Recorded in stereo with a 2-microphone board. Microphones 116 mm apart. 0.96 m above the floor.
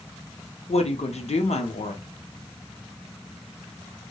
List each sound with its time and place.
0.7 s a woman speaking: 70° left (ahead or behind), 0.5 m